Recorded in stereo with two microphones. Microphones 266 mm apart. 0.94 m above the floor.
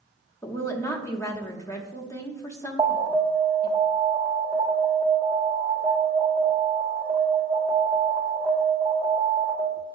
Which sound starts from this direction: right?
An alarm, at 2.8 s.